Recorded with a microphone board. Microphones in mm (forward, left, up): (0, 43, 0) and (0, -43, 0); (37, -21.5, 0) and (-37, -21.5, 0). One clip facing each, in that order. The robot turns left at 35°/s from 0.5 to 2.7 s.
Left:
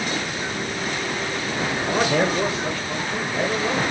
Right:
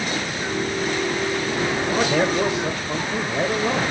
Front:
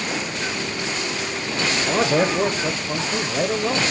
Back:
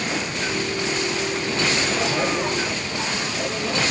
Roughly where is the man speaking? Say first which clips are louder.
Left 1 dB, front 3 dB; ahead.